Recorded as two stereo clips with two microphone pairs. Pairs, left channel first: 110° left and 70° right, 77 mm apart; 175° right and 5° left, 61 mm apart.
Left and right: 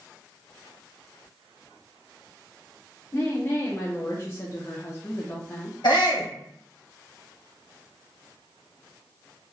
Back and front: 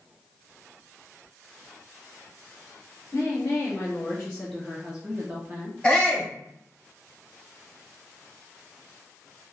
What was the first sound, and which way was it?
A woman speaking, 170° left.